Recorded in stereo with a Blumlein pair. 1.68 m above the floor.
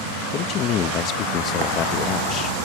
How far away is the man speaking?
About 0.7 m.